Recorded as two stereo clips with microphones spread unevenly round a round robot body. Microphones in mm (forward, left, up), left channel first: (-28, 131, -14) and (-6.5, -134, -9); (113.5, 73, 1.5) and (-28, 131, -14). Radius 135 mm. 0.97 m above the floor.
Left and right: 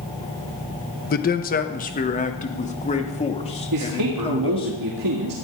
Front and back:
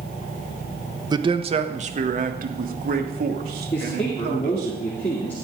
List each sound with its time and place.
1.1 s a man speaking: 125° left, 1.0 m; by 4.7 s 165° left, 3 m
3.7 s a man speaking: 90° right, 2 m